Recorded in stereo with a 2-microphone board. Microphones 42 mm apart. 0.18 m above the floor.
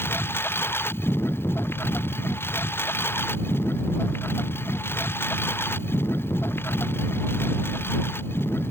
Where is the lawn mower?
60° left (ahead or behind).